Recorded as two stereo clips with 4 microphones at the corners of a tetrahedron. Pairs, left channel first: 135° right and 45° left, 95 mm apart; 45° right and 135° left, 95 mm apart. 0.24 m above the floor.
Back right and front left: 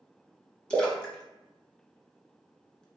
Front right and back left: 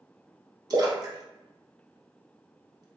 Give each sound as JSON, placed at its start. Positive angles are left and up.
{"t": 0.7, "sound": "a splash", "azimuth_deg": 145, "distance_m": 0.7}